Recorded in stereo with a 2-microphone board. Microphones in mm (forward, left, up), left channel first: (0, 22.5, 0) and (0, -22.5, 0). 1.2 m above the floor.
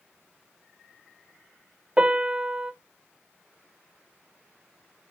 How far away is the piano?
About 0.9 m.